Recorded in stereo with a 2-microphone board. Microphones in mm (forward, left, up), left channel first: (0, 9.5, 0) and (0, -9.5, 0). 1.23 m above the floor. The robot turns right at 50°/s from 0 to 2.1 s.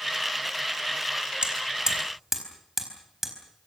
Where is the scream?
No scream in this recording.